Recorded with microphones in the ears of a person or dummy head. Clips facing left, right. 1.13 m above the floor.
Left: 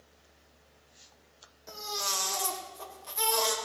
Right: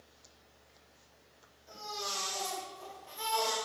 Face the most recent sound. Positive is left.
turn(degrees=70)  # may be behind; listen again after turning